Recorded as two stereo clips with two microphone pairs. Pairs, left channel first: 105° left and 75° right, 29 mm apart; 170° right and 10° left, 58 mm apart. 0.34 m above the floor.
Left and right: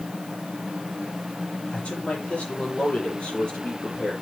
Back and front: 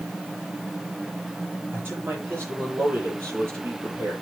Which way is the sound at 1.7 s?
60° left.